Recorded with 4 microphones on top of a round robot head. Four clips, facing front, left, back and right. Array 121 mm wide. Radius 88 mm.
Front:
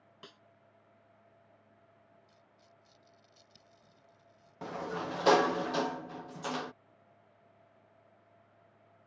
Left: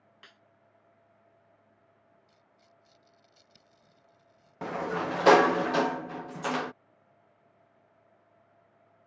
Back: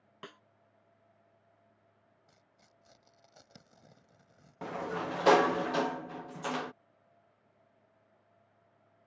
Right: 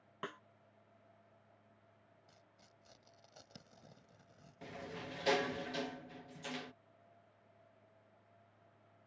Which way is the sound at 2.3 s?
145° right.